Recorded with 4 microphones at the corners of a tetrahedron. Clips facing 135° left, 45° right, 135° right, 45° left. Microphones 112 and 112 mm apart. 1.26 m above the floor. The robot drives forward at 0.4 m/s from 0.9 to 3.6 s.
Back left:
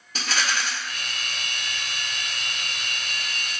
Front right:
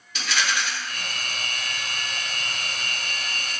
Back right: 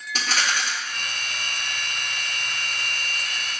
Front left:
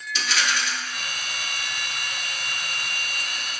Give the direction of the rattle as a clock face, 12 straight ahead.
6 o'clock.